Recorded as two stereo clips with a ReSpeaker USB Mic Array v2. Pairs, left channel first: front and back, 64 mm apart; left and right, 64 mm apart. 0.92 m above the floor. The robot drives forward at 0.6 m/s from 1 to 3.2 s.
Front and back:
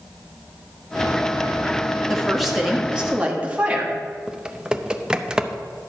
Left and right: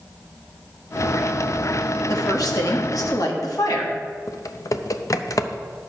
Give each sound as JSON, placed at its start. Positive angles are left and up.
{"t": 2.1, "sound": "a woman speaking", "azimuth_deg": 80, "distance_m": 1.5}
{"t": 4.3, "sound": "typing on a keyboard", "azimuth_deg": 100, "distance_m": 0.6}